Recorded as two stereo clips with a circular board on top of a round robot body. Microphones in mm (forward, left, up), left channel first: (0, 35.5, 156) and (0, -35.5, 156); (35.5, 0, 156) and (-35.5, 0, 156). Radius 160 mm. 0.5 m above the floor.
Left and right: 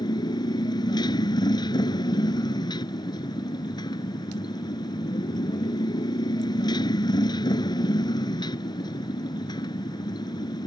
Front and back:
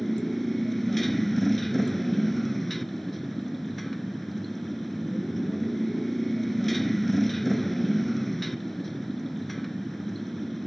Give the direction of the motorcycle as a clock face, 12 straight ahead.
9 o'clock.